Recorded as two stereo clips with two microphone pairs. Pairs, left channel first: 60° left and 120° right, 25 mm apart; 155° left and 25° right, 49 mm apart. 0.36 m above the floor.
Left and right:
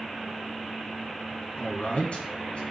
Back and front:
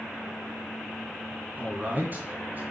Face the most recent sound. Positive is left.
turn(degrees=25)